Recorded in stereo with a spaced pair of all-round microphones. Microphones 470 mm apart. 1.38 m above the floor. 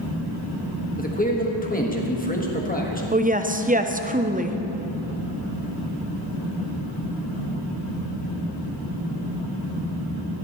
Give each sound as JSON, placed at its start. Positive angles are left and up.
{"t": 1.0, "sound": "a man speaking", "side_deg": 20, "distance_m": 1.4}
{"t": 3.1, "sound": "a woman speaking", "side_deg": -20, "distance_m": 0.6}